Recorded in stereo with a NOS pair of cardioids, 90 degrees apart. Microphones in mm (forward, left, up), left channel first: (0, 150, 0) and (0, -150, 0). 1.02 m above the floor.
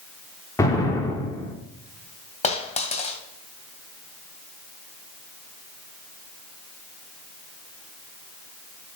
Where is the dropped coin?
20° left, 2.5 m.